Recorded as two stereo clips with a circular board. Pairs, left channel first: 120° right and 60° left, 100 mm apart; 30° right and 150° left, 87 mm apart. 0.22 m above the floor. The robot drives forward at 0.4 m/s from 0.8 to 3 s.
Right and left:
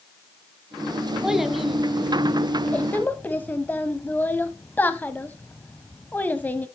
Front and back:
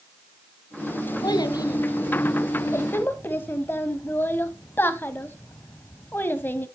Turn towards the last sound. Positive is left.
turn(degrees=-65)